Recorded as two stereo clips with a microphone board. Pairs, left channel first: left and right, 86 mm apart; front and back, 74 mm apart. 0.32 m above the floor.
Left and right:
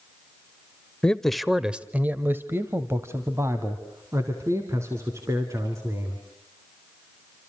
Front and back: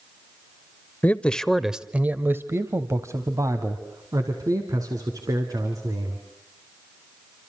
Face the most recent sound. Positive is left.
turn(degrees=-145)